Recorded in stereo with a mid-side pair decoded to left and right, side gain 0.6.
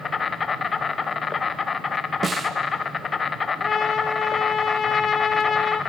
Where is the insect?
30° left, 1.1 m.